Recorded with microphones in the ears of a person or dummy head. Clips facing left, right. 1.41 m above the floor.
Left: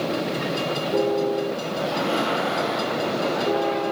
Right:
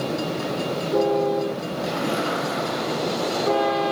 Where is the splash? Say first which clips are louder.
Left 1 dB; 35° right (ahead or behind), 5.5 m.